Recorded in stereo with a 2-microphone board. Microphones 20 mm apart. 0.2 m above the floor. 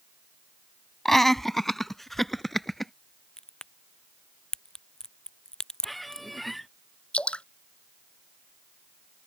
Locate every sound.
1.1 s laughter: 15° left (ahead or behind)
3.4 s a crack: 30° left (ahead or behind)
5.8 s a squeak: centre (ahead or behind)
7.1 s dripping: 75° left (ahead or behind)